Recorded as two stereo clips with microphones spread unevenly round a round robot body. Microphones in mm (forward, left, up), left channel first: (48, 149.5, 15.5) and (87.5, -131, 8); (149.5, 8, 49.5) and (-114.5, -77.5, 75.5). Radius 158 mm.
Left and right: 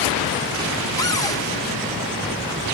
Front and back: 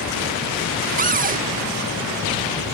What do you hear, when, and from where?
1.0 s a cupboard door: 165° left